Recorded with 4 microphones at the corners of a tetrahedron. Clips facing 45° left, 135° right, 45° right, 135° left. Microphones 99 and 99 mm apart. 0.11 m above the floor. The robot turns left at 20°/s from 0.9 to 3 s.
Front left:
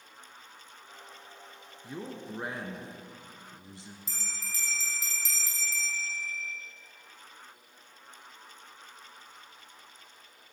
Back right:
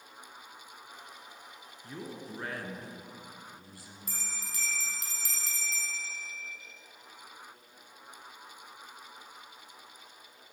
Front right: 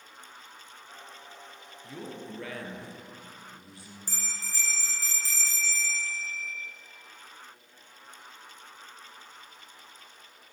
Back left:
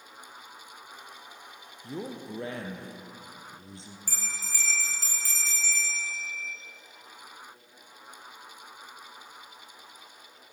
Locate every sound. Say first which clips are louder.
1.8 s a man speaking: front left 2 dB, back left 4 dB; 115° left, 1.3 m; by 4.0 s 90° left, 1.3 m
4.1 s a bell: even, back left 1 dB; 110° right, 2.5 m